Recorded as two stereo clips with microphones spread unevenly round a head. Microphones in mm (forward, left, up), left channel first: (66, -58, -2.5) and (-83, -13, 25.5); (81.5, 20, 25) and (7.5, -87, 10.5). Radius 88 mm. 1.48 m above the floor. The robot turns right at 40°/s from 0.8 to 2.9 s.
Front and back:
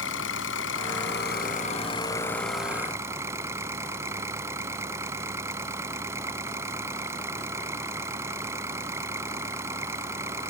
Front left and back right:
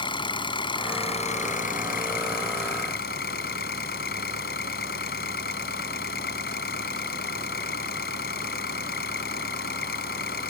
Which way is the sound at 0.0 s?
5° left.